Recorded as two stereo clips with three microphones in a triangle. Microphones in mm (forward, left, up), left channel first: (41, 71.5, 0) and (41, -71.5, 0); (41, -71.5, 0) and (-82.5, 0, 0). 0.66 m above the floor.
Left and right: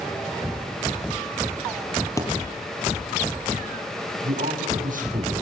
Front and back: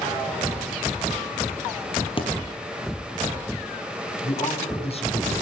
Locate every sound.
2.2 s a thud: 20° left, 5 m
4.2 s a man speaking: 75° right, 6 m